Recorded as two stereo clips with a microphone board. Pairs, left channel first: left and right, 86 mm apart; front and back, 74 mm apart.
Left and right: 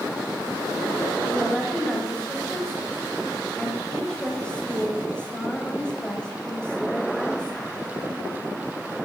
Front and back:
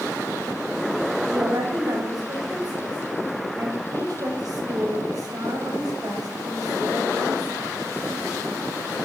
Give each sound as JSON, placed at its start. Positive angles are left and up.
{"t": 1.3, "sound": "a woman speaking", "azimuth_deg": 165, "distance_m": 2.5}